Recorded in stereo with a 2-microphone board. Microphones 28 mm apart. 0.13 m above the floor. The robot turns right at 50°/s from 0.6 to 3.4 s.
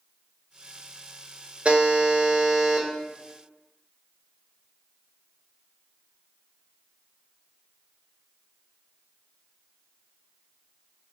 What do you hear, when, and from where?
1.6 s a buzzer: 60° right, 0.8 m; by 2.9 s straight ahead, 0.8 m